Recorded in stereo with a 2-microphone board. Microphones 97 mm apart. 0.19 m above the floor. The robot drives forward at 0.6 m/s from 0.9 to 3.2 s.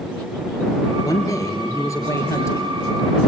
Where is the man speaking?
40° left (ahead or behind), 3 m; by 3.2 s 30° left (ahead or behind), 4 m.